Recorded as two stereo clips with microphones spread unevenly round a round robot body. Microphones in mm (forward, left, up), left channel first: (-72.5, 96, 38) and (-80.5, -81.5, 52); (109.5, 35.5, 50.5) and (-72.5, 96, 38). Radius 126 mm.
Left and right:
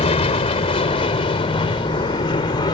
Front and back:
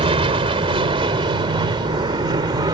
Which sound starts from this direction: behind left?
An aircraft, at 0.0 s.